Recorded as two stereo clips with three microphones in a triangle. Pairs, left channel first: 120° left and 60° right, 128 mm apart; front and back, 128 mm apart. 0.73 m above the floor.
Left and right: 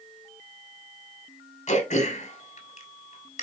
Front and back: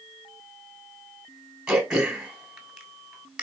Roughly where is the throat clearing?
Left.